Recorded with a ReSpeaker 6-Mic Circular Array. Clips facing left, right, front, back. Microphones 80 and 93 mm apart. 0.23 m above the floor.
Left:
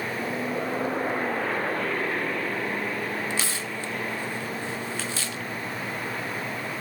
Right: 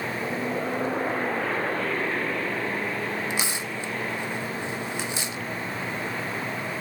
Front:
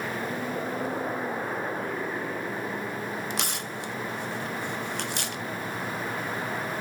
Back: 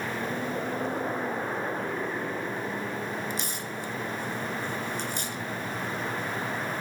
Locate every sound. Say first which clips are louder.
3.3 s tearing paper: right 1 dB, front 1 dB; 20° right, 0.5 m